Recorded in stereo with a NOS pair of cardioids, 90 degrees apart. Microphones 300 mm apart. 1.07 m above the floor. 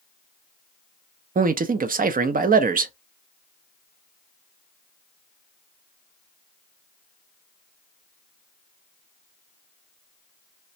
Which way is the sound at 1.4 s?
30° right.